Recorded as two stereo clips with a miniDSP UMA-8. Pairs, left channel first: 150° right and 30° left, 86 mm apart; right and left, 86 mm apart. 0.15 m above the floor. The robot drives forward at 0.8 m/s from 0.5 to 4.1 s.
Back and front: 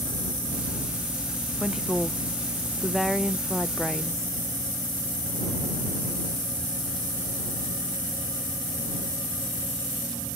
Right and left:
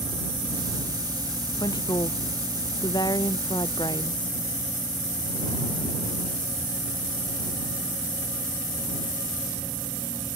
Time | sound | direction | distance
1.6 | a woman speaking | 55° right | ?